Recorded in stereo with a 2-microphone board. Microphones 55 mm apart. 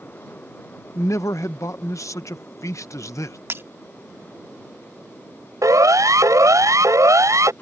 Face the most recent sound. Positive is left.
turn(degrees=-70)  # may be behind; listen again after turning